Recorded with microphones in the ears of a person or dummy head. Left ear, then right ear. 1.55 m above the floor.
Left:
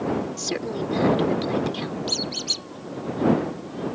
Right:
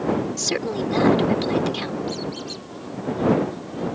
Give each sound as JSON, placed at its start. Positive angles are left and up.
{"t": 0.4, "sound": "a woman speaking", "side_deg": -20}
{"t": 2.1, "sound": "a squeak", "side_deg": 40}